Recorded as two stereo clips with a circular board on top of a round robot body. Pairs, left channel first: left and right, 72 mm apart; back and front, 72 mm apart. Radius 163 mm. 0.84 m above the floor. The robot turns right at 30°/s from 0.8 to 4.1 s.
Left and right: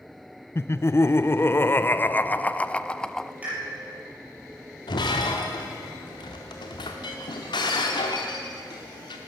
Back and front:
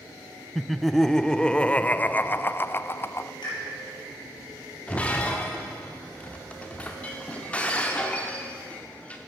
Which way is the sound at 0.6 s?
95° left.